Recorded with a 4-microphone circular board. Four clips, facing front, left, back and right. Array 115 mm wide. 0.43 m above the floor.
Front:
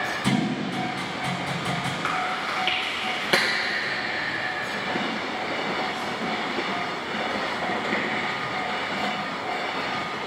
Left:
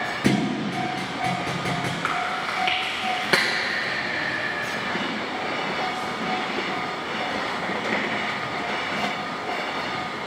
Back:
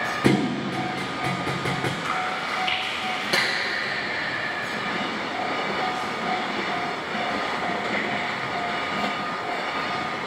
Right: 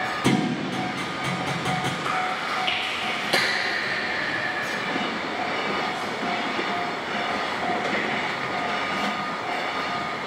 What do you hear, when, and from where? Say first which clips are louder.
0.2 s a thud: left 1 dB, back 4 dB; 165° left, 1.3 m
2.0 s chewing: even, even; 70° left, 2.5 m